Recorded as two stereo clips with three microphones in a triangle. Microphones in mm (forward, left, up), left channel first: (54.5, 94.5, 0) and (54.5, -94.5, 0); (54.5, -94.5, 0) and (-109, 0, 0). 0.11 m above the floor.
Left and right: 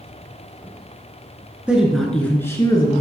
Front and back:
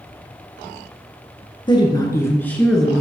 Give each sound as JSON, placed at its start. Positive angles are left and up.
{"t": 1.7, "sound": "a woman speaking", "azimuth_deg": -15, "distance_m": 1.3}